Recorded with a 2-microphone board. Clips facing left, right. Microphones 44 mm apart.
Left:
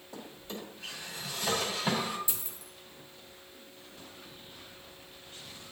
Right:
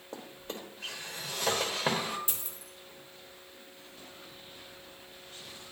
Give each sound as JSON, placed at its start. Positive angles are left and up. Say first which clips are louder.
{"t": 0.1, "sound": "a drawer", "louder": "right 1 dB", "side_deg": -55, "distance_m": 1.7}
{"t": 2.3, "sound": "a dropped coin", "louder": "even", "side_deg": -45, "distance_m": 1.9}